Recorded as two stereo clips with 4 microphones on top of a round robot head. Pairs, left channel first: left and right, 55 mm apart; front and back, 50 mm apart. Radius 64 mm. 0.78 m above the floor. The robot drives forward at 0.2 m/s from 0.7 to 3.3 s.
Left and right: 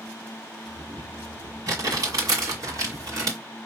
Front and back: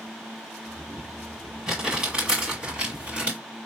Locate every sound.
1.7 s crumpling: 95° right, 1.8 m; by 3.4 s 105° right, 1.9 m